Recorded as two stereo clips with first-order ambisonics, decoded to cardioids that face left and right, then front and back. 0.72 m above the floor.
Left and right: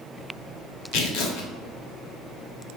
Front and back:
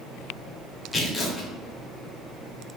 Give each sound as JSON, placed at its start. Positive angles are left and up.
{"t": 0.9, "sound": "tearing paper", "azimuth_deg": 75, "distance_m": 1.1}